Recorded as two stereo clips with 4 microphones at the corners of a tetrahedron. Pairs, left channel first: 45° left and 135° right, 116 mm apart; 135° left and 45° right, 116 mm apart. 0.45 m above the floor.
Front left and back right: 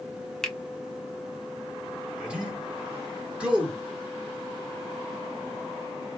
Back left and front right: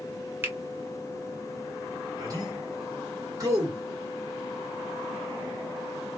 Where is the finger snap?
35° right, 0.6 m.